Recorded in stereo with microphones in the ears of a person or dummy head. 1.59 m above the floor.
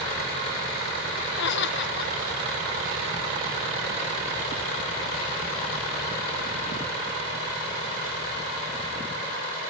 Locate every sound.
1.4 s laughter: 65° left (ahead or behind), 1.5 m